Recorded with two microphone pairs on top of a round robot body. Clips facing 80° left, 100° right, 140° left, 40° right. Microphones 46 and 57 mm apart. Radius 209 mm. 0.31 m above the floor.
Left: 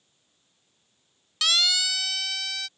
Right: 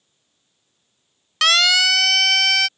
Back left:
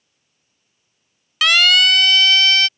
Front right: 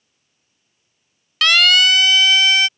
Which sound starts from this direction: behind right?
A siren, at 1.4 s.